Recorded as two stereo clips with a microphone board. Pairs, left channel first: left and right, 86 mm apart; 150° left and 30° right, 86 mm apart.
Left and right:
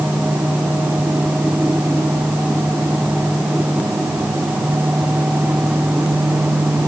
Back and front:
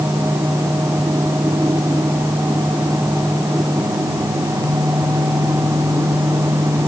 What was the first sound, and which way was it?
Only background noise.